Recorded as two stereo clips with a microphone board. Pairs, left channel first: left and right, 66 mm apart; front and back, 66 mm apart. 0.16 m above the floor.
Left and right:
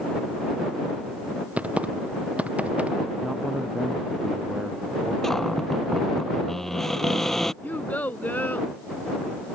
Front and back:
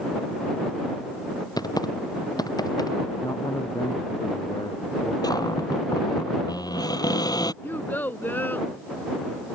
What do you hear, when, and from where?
1.6 s typing on a keyboard: 20° right
3.2 s a man speaking: 10° right
5.2 s a cupboard door: 5° left
7.6 s a child speaking: 40° left